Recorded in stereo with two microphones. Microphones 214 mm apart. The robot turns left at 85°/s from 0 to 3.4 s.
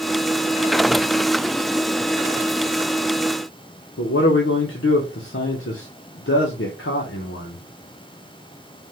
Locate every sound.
4.0 s a man speaking: 75° left (ahead or behind), 0.7 m